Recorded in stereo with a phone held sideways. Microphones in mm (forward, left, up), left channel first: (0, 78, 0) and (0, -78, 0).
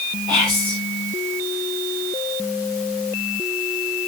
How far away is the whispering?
About 2 m.